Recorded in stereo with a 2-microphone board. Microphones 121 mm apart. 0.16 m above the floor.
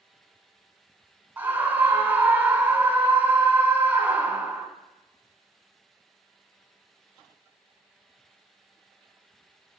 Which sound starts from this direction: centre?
A scream, at 1.4 s.